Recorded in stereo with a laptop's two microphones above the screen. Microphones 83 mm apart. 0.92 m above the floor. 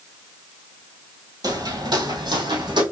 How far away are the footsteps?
About 1.5 m.